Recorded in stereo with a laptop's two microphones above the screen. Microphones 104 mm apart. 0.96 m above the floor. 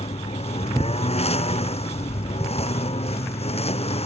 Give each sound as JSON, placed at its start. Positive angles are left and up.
{"t": 0.0, "sound": "a lawn mower", "side_deg": 85}